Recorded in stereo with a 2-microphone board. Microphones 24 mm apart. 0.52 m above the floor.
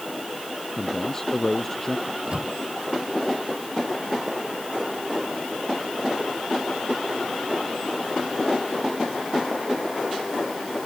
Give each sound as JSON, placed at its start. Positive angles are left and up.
{"t": 0.8, "sound": "a man speaking", "side_deg": 25}
{"t": 2.1, "sound": "a microwave", "side_deg": -40}